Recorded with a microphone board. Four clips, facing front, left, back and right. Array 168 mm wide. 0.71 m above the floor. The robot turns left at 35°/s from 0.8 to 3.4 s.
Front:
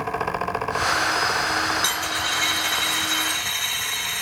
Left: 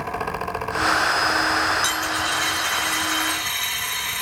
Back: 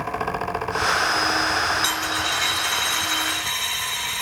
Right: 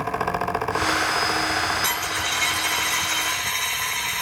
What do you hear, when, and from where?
1.8 s a dropped coin: 60° right, 1.6 m; by 4.2 s 115° right, 1.6 m